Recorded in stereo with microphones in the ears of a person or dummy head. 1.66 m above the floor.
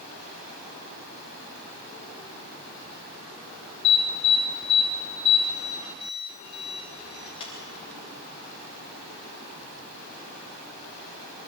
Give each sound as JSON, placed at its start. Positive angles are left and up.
{"t": 3.8, "sound": "an alarm", "side_deg": 35, "distance_m": 8.5}